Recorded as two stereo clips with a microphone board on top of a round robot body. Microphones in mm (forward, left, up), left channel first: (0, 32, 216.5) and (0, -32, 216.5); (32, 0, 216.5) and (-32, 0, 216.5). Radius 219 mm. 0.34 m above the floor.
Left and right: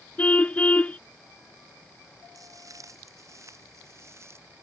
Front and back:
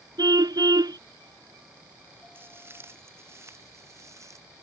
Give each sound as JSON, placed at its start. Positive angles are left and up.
{"t": 0.2, "sound": "a car horn", "azimuth_deg": 160}
{"t": 2.4, "sound": "footsteps", "azimuth_deg": -125}